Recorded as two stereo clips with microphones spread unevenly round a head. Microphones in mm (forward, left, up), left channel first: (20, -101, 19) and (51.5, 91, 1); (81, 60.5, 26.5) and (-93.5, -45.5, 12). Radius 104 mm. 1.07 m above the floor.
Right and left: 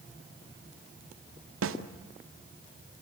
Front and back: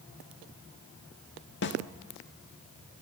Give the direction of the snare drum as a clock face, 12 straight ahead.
10 o'clock.